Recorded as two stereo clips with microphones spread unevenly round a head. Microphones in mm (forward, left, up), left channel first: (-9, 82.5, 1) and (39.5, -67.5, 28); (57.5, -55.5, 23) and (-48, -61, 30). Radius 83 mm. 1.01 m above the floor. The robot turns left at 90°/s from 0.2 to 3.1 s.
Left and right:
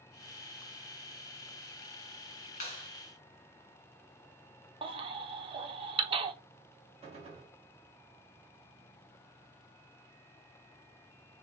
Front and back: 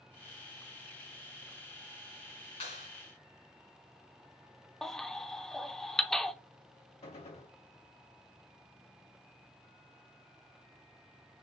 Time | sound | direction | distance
2.6 | a clap | 60° left | 2.5 m
4.8 | a baby crying | 85° right | 0.7 m
7.0 | a gunshot | 15° right | 2 m